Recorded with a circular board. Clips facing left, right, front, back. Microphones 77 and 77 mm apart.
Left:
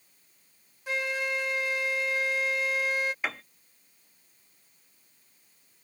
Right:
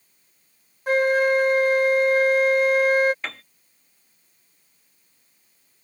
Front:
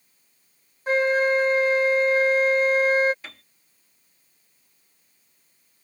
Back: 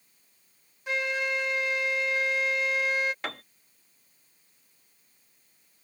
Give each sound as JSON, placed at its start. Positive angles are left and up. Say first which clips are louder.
{"t": 0.9, "sound": "a flute", "louder": "right 13 dB, front 10 dB", "azimuth_deg": -50}
{"t": 3.2, "sound": "a piano", "louder": "left 1 dB, back 9 dB", "azimuth_deg": 170}